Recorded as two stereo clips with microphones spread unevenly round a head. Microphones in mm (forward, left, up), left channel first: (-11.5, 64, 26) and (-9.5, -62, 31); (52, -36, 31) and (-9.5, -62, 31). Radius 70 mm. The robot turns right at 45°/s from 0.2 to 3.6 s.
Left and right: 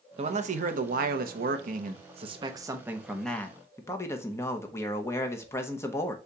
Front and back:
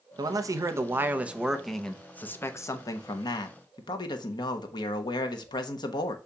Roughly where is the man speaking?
Behind right.